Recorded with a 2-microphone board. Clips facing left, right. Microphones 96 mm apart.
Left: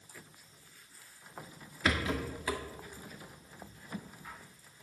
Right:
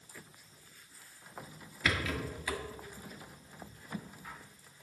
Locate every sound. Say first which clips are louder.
1.9 s a rattle: left 2 dB; 30° left (ahead or behind), 1.4 m